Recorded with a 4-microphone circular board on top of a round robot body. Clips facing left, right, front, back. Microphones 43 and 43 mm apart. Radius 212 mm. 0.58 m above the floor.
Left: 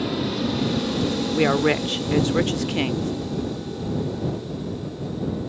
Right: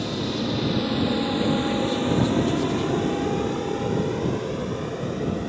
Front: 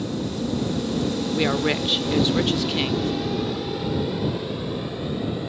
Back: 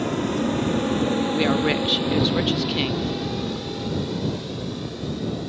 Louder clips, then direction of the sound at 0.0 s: Left 2 dB, back 4 dB; 170° left.